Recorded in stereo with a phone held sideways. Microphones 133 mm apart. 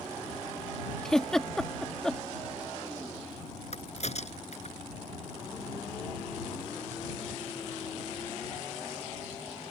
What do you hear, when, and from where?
1.1 s a giggle: 5° left (ahead or behind)
3.7 s a crack: 55° left (ahead or behind)